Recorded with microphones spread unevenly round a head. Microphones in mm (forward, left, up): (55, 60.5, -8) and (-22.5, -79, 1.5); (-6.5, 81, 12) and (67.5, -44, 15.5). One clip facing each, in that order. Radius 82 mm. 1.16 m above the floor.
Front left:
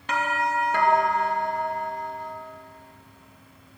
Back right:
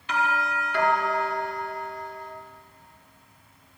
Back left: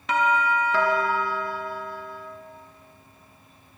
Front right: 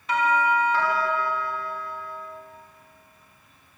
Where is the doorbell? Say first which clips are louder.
Front left 1 dB, even; 110° left, 3.5 m.